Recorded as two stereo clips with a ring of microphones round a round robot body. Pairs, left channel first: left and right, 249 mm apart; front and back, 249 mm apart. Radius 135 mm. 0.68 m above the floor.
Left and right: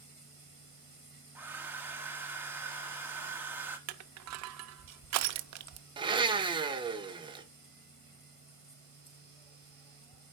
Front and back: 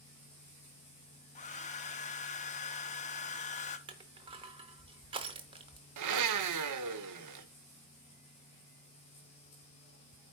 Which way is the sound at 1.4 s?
15° right.